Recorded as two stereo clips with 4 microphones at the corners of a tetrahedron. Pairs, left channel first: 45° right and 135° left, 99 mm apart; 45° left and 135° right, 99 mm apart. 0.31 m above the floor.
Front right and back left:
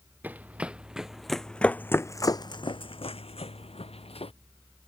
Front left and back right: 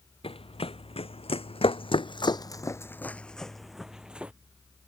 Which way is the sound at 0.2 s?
65° left.